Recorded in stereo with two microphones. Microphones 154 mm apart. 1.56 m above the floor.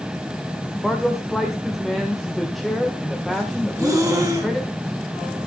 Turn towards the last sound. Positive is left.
turn(degrees=-20)  # may be behind; listen again after turning